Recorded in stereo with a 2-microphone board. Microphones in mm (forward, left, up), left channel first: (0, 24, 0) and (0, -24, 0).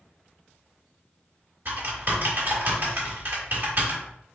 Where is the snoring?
I don't hear snoring.